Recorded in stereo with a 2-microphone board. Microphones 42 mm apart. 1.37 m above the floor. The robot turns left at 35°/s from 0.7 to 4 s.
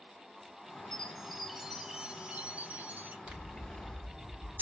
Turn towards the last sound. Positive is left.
turn(degrees=-45)  # may be behind; listen again after turning